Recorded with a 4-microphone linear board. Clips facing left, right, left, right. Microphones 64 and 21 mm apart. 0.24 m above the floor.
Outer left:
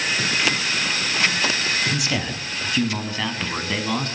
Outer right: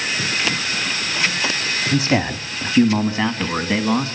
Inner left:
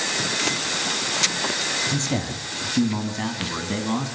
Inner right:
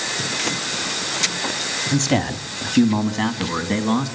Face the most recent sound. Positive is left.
turn(degrees=-20)  # may be behind; listen again after turning